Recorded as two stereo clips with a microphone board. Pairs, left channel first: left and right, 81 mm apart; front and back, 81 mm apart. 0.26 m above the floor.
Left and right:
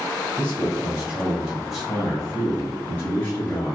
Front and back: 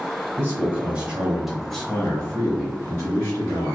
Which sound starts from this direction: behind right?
A man speaking, at 0.4 s.